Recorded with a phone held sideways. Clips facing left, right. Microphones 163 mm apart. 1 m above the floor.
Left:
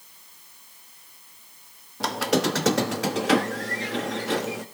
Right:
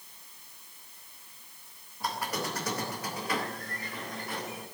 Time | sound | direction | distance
2.0 | a squeak | 85° left | 1.0 m